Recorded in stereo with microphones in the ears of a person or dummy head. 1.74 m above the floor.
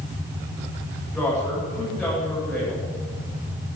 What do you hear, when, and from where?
1.1 s a woman speaking: 5° left (ahead or behind), 8.5 m